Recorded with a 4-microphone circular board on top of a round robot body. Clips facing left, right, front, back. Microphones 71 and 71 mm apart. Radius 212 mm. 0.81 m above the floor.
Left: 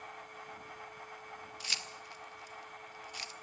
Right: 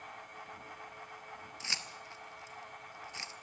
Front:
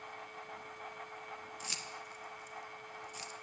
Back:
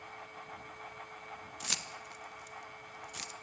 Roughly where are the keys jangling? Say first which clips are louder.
Right 2 dB, back 2 dB; behind right.